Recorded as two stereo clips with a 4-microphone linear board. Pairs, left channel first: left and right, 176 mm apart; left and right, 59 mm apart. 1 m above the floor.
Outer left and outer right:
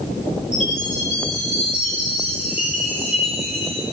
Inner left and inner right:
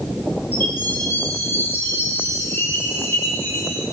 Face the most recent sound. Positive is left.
turn(degrees=40)  # may be behind; listen again after turning